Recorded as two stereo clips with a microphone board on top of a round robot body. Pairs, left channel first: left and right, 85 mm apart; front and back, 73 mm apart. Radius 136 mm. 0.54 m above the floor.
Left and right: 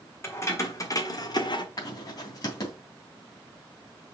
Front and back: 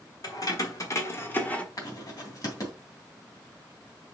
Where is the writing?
45° left, 3 m.